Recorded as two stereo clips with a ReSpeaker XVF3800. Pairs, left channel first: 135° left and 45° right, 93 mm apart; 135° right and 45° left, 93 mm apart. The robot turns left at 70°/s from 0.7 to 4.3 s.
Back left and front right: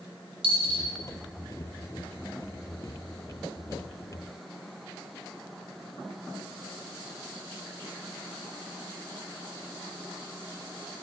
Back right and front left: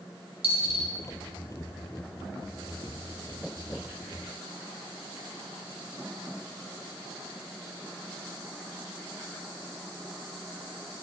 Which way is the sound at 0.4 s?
25° right.